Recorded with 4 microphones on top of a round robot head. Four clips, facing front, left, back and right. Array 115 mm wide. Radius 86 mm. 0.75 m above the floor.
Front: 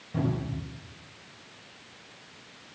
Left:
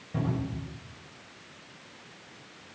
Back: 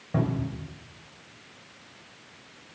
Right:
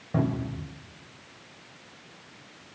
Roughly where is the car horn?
No car horn in this recording.